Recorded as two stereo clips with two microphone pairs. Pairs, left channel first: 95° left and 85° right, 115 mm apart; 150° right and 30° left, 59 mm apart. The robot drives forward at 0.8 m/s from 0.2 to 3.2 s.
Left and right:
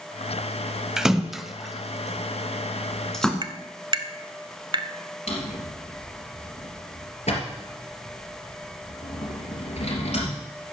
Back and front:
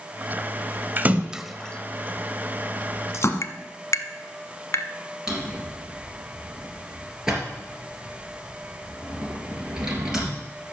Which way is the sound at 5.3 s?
110° left.